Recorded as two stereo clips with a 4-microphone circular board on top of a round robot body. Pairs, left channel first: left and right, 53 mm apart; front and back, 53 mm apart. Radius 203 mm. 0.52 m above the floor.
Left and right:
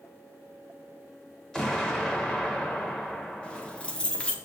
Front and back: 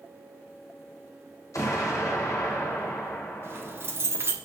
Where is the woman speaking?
I don't hear a woman speaking.